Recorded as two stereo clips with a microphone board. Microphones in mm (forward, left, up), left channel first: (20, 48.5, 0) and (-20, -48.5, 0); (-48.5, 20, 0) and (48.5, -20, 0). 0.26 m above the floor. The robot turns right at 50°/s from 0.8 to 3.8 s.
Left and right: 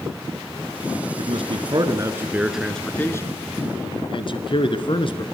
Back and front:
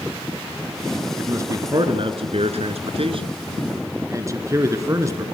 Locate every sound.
1.2 s a man speaking: 95° right, 3 m; by 5.2 s 35° left, 3 m